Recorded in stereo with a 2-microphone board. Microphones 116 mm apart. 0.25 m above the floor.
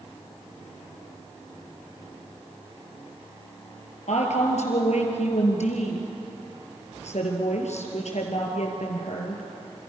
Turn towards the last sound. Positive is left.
turn(degrees=75)  # may be behind; listen again after turning